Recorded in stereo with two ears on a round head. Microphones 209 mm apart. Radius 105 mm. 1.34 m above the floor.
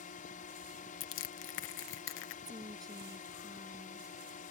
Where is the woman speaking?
15° right (ahead or behind).